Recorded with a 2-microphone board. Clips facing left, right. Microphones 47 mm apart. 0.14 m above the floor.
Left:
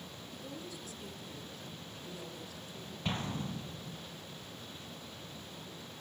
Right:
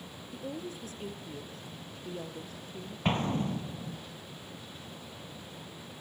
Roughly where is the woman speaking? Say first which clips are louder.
Right 7 dB; right.